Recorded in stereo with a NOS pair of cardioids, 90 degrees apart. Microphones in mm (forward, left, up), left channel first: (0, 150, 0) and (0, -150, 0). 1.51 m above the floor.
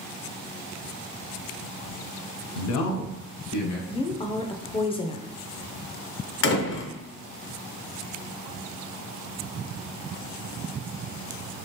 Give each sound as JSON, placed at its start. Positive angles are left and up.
{"t": 2.5, "sound": "a man speaking", "azimuth_deg": 60, "distance_m": 0.8}
{"t": 3.9, "sound": "a woman speaking", "azimuth_deg": 15, "distance_m": 0.6}
{"t": 6.4, "sound": "a door slam", "azimuth_deg": 40, "distance_m": 0.8}